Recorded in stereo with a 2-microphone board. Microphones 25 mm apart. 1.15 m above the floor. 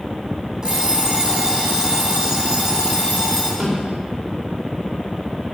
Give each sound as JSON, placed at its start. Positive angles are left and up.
{"t": 0.6, "sound": "an alarm clock", "side_deg": -30, "distance_m": 4.5}
{"t": 3.6, "sound": "a snare drum", "side_deg": -45, "distance_m": 4.0}